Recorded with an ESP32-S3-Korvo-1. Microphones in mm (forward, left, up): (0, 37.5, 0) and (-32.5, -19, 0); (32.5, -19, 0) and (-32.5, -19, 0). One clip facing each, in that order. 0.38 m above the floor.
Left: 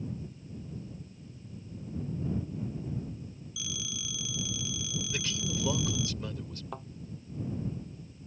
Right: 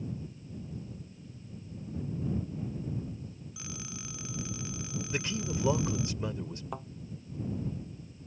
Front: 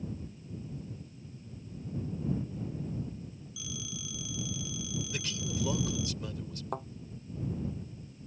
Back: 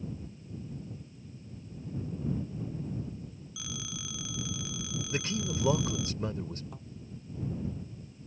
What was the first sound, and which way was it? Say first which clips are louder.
A phone ringing: left 3 dB, back 1 dB; 165° right.